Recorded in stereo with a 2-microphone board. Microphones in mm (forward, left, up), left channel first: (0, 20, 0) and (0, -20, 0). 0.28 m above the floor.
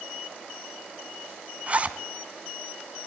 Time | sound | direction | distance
1.7 | a zipper | 35° right (ahead or behind) | 1.5 m